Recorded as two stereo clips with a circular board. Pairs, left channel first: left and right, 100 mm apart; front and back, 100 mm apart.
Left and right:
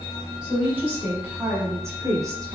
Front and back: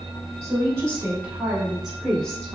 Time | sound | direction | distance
0.4 | a woman speaking | 160° right | 1.3 m